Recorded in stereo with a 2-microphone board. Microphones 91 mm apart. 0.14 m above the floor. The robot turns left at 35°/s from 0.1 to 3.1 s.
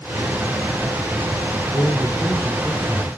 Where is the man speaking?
30° left, 6.5 m; by 3.1 s 20° right, 6.5 m.